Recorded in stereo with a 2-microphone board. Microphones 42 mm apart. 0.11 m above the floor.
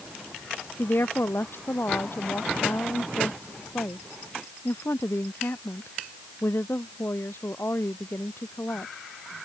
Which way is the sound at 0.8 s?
60° left (ahead or behind).